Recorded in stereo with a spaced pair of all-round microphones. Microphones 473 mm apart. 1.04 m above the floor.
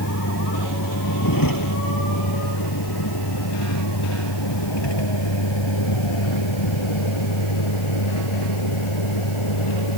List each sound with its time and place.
0.0 s a vehicle: 40° left (ahead or behind); by 10.0 s 85° left